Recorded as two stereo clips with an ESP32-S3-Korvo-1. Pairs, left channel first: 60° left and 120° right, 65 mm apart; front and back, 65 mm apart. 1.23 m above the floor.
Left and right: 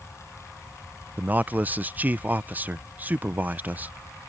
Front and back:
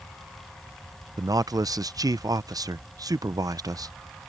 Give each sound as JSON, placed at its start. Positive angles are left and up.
{"t": 1.2, "sound": "a man speaking", "azimuth_deg": 175}